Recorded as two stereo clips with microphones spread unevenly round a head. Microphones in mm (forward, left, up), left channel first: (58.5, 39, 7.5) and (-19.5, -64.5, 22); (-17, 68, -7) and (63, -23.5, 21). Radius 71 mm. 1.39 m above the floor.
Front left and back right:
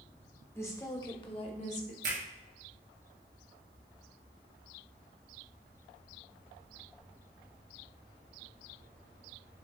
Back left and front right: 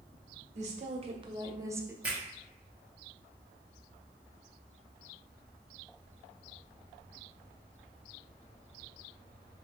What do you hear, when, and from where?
0.6 s a woman speaking: 20° right, 1.2 m; by 1.9 s 30° left, 0.9 m
2.0 s a finger snap: 125° right, 1.2 m